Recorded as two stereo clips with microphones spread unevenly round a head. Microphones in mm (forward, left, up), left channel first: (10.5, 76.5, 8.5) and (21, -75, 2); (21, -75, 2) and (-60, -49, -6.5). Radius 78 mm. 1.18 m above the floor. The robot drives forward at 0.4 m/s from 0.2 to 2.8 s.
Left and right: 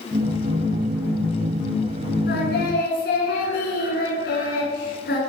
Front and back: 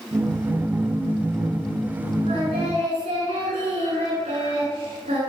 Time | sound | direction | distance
2.3 | singing | 125° left | 9 m